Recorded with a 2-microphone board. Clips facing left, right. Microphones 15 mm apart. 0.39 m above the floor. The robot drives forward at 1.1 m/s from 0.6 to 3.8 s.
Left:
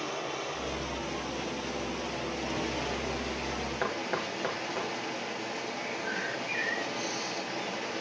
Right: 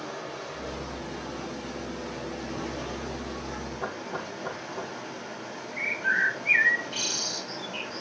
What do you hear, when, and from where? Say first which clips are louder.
0.0 s running water: left 2 dB; 55° left (ahead or behind), 8.5 m; by 8.0 s 75° left (ahead or behind), 7 m
3.8 s knocking: left 3 dB; 60° left (ahead or behind), 4 m
5.7 s a bird: right 13 dB; 65° right (ahead or behind), 1.5 m